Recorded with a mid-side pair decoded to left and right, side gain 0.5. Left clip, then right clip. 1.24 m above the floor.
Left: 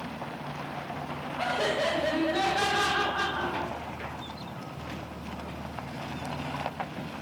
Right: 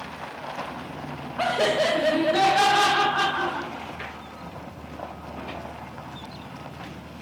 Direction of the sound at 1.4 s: 45° right.